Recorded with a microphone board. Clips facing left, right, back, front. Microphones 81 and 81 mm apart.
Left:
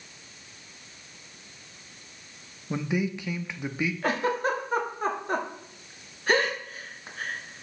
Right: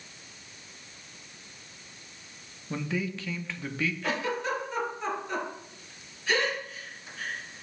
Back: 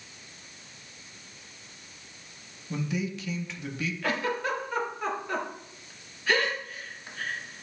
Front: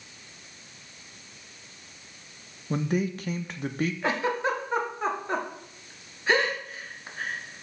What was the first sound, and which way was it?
A man speaking, 20° left.